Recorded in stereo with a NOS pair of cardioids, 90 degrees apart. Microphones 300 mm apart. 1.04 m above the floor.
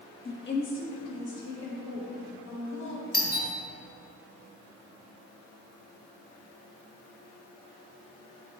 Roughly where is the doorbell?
Ahead left.